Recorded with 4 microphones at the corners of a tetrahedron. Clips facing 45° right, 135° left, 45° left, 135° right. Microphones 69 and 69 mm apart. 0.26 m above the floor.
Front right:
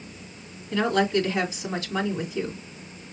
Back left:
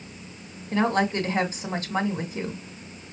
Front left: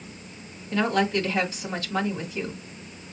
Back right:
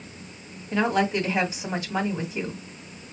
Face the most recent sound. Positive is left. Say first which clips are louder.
# front right 1 dB, even
turn(degrees=160)